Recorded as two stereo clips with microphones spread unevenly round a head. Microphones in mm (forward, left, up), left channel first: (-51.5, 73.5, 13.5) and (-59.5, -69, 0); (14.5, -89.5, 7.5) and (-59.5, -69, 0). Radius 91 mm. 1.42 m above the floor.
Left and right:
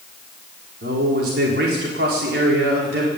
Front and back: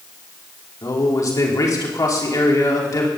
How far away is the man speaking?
About 4.5 m.